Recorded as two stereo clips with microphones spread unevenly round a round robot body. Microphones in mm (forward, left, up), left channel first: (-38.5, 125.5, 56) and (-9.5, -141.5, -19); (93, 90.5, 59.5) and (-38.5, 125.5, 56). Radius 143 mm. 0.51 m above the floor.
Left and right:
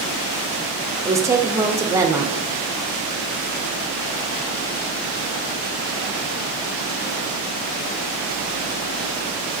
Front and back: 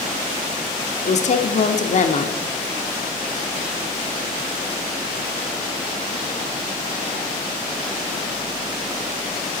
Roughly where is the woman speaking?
Ahead.